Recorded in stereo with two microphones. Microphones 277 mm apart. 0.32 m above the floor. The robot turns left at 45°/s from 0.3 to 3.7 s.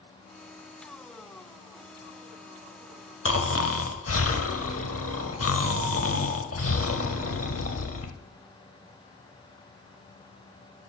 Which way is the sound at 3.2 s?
50° left (ahead or behind).